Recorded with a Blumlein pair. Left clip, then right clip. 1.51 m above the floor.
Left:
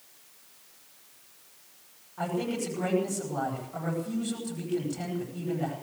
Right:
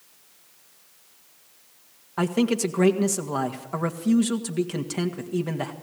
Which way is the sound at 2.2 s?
35° right.